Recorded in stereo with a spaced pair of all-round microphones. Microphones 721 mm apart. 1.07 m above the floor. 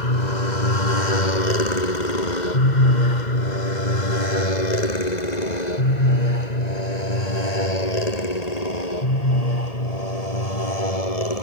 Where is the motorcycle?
70° left (ahead or behind); by 11.4 s 55° left (ahead or behind).